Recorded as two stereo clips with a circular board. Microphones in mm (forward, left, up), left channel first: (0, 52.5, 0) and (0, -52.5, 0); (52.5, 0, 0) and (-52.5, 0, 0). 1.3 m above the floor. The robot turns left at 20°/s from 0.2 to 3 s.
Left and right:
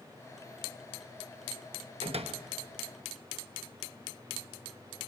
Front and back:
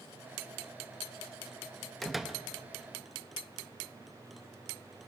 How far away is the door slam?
About 1.0 m.